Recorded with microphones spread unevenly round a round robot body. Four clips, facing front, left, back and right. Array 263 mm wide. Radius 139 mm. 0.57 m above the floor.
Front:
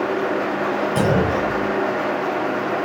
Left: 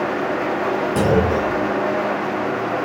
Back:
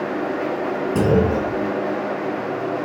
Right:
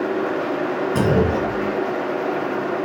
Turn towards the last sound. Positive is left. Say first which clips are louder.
# left 1 dB, back 3 dB
turn(degrees=-155)